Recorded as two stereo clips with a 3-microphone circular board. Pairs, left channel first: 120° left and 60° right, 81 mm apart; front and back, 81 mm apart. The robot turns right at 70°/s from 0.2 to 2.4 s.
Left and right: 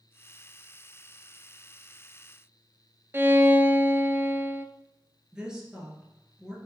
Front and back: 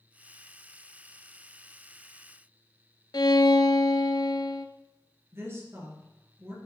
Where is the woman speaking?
135° right, 2 m.